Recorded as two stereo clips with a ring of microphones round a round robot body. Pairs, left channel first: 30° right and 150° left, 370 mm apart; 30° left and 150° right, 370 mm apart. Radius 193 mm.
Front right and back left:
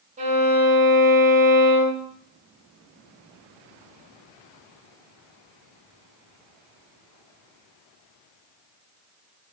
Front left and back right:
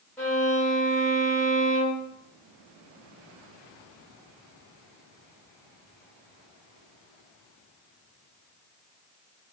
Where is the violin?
110° left, 1.1 m.